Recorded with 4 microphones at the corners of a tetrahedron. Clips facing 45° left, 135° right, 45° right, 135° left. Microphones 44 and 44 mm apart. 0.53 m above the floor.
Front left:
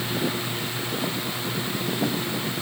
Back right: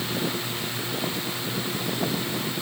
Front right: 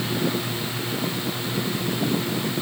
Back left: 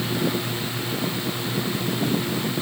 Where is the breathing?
I don't hear breathing.